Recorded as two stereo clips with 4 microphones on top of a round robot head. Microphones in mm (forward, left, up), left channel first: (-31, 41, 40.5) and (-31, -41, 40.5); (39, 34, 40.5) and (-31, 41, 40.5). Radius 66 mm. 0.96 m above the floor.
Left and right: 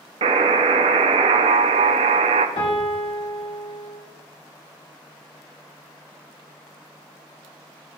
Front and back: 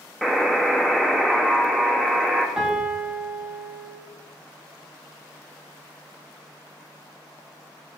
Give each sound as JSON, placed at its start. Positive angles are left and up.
{"t": 0.2, "sound": "a buzzer", "azimuth_deg": -95, "distance_m": 0.5}
{"t": 2.6, "sound": "a piano", "azimuth_deg": 95, "distance_m": 1.9}